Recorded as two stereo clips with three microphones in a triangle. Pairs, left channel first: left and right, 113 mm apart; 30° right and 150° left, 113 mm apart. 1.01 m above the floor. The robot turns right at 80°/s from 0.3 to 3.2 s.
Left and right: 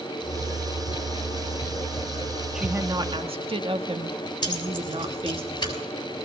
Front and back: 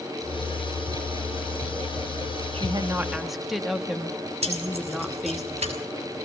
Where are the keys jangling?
140° left, 6 m.